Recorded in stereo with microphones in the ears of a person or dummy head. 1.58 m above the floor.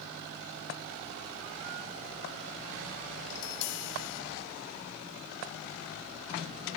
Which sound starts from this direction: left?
Tapping, at 3.3 s.